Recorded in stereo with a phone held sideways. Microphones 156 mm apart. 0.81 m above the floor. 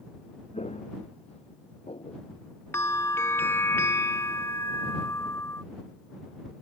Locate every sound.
0.5 s footsteps: 45° left (ahead or behind); by 2.2 s 40° left (ahead or behind)
2.7 s a bell: 15° left (ahead or behind)